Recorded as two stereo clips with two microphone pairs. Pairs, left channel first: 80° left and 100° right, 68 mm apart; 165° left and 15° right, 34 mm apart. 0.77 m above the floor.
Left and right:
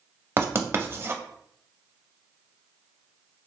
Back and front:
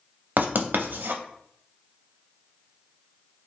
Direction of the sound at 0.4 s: 45° right.